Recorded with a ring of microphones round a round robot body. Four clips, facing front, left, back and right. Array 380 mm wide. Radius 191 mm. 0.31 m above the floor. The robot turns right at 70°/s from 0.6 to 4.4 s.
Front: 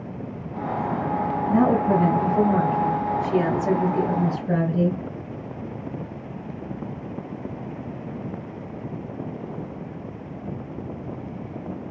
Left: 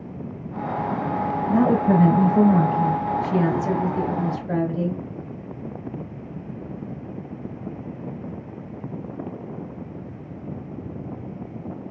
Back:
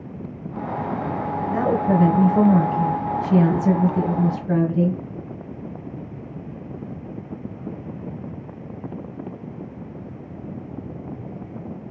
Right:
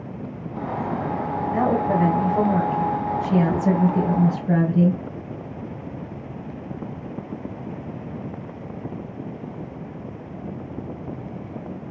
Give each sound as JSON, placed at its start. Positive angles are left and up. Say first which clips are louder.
{"t": 1.5, "sound": "a woman speaking", "louder": "left 2 dB, front 1 dB", "azimuth_deg": 110, "distance_m": 1.8}